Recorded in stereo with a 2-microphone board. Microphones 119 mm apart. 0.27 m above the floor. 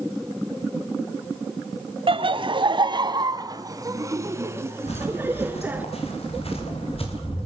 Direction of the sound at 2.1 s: 55° right (ahead or behind).